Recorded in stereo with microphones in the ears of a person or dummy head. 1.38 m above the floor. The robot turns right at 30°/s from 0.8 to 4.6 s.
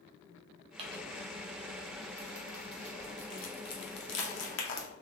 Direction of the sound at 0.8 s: 30° right (ahead or behind).